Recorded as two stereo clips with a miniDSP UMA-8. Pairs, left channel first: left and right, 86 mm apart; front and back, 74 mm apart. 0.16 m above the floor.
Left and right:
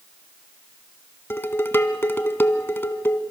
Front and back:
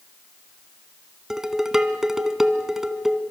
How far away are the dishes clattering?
About 0.9 m.